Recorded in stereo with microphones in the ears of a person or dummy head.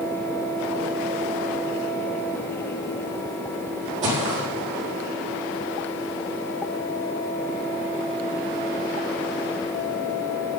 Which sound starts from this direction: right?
Footsteps, at 4.0 s.